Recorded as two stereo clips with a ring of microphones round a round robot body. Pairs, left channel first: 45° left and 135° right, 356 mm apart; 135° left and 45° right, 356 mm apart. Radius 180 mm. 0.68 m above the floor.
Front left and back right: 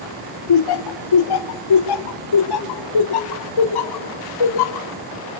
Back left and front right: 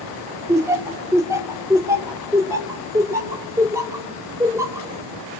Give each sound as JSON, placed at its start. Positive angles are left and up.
{"t": 0.5, "sound": "laughter", "azimuth_deg": 35, "distance_m": 2.0}